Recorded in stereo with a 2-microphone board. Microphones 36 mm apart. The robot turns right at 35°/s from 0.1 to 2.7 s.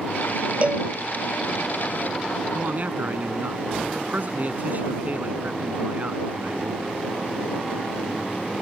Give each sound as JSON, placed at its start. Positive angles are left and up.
{"t": 0.6, "sound": "a cowbell", "side_deg": -35}
{"t": 2.5, "sound": "a man speaking", "side_deg": -55}